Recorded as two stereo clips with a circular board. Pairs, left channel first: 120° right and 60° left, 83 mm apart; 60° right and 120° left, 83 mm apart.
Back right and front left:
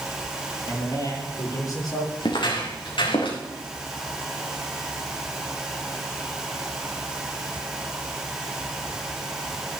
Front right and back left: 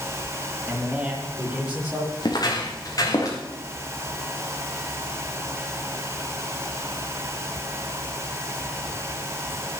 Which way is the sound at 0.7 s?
160° right.